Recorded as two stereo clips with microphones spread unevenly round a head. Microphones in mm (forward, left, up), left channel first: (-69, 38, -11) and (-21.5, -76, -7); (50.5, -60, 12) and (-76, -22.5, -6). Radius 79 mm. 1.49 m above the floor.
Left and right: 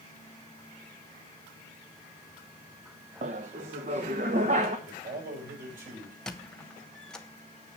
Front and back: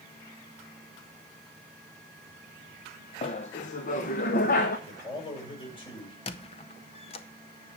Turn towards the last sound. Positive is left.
turn(degrees=30)